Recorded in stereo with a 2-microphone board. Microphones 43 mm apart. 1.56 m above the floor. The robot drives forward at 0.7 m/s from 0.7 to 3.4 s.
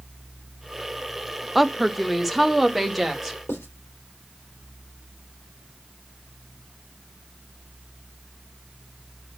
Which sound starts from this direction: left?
Writing, at 3.5 s.